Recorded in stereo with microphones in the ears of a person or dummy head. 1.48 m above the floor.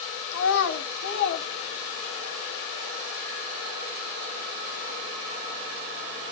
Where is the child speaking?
70° left (ahead or behind), 1.9 m; by 2.3 s 55° left (ahead or behind), 2.5 m.